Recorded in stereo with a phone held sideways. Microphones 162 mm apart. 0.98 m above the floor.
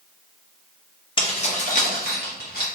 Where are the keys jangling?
30° left (ahead or behind), 0.7 m; by 2.7 s 75° left (ahead or behind), 1.2 m.